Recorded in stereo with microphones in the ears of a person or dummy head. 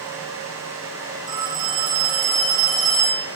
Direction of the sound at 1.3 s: 20° right (ahead or behind).